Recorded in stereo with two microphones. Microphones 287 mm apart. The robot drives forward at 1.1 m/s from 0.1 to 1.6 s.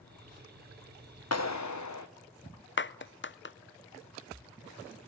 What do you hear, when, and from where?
1.3 s a clap: 60° left (ahead or behind), 1.1 m; by 2.1 s 75° left (ahead or behind), 1.0 m
2.8 s a clap: 40° left (ahead or behind), 0.6 m